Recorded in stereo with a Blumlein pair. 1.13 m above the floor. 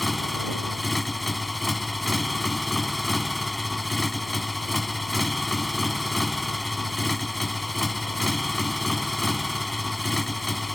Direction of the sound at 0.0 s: 5° left.